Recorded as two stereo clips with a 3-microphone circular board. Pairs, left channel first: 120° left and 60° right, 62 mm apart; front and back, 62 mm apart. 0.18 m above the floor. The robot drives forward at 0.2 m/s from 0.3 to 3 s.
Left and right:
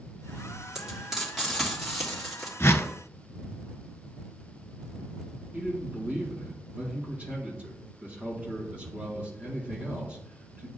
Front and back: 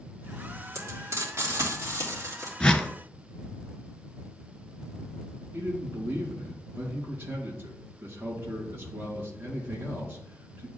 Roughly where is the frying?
Behind right.